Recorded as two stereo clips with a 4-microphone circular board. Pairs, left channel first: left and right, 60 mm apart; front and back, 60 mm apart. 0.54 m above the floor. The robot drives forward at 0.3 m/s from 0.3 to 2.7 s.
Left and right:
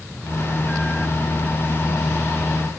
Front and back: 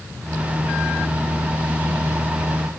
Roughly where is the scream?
No scream in this recording.